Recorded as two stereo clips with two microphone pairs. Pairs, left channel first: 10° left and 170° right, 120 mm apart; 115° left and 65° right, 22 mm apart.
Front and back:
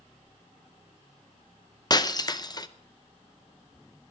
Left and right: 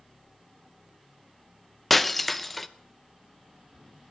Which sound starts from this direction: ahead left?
Breaking glass, at 1.9 s.